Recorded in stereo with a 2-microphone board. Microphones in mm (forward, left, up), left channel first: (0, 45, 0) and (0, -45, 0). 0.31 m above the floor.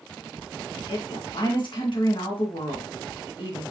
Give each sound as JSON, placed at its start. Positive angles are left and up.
{"t": 0.9, "sound": "a woman speaking", "side_deg": 65, "distance_m": 3.5}